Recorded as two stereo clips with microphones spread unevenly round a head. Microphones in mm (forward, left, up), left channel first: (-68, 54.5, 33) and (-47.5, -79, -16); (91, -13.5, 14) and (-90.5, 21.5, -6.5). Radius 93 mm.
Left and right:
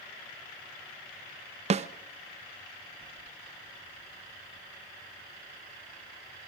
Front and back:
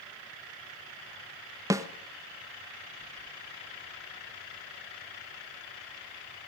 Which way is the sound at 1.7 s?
115° right.